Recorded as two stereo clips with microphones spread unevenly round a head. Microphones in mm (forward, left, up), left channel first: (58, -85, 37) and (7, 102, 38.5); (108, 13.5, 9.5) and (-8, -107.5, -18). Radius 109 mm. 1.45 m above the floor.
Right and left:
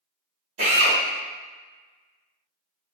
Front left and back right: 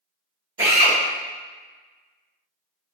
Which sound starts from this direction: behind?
A drill, at 0.6 s.